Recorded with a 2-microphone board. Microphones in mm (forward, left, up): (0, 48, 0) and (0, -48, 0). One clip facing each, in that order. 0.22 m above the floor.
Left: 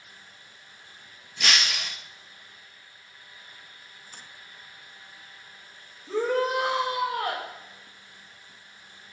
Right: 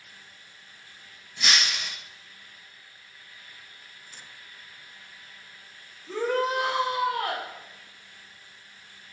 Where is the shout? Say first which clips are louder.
Left 1 dB; 10° left (ahead or behind), 4 m.